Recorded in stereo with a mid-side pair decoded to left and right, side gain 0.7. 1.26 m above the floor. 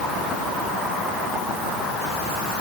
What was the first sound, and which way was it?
Only background noise.